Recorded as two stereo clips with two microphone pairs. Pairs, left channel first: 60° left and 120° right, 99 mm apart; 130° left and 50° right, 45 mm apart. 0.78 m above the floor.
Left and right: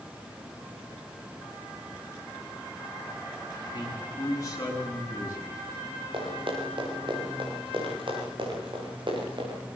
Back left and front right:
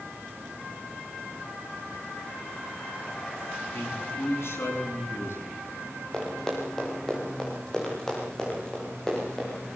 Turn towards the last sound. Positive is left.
turn(degrees=-150)